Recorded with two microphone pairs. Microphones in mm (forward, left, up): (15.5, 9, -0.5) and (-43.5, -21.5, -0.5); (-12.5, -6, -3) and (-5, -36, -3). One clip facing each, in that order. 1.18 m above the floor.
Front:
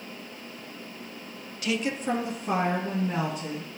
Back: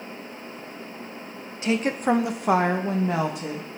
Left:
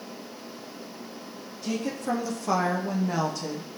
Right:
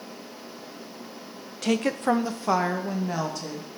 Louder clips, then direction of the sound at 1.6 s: Back 5 dB, right 6 dB; 90° right.